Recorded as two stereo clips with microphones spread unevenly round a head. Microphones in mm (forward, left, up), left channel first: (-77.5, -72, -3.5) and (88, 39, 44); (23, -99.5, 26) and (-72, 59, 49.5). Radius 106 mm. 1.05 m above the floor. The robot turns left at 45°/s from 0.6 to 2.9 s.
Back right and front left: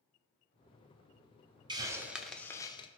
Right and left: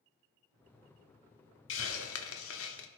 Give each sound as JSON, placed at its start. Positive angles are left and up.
{"t": 1.7, "sound": "a hiss", "azimuth_deg": -25, "distance_m": 1.0}